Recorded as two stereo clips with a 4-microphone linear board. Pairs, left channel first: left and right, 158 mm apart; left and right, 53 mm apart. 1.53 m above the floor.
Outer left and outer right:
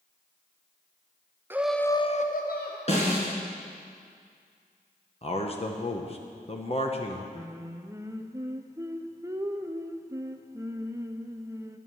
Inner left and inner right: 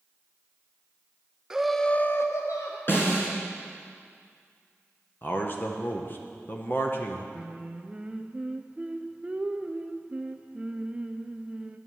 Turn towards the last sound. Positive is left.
turn(degrees=-20)  # may be behind; listen again after turning